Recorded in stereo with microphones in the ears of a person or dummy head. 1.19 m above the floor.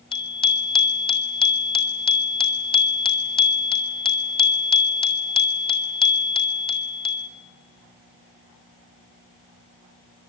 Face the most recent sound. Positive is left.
turn(degrees=25)  # may be behind; listen again after turning